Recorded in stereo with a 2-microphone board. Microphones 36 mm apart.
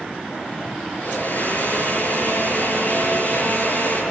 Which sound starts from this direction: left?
A blender, at 0.9 s.